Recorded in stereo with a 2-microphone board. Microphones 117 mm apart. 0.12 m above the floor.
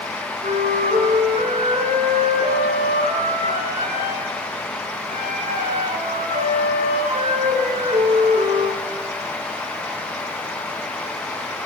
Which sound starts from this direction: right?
A flute, at 0.4 s.